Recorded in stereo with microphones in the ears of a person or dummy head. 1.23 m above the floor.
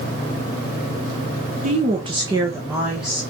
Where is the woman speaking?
45° right (ahead or behind), 1.1 m; by 3.2 s centre (ahead or behind), 1.5 m.